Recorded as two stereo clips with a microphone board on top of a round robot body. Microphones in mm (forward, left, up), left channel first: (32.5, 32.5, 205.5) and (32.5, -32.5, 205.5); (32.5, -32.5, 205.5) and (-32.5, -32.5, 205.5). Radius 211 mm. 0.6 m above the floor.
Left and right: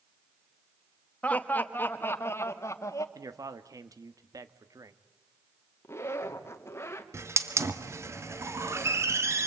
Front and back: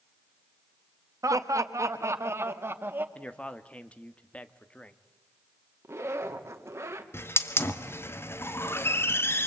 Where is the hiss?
50° right, 2 m.